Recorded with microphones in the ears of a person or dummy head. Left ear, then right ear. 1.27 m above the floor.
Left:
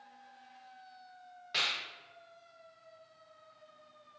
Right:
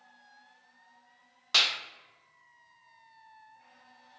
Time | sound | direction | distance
1.5 | a clap | 40° right (ahead or behind) | 0.8 m